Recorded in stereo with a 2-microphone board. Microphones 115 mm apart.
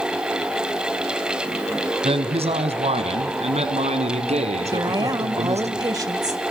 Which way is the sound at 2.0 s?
60° right (ahead or behind).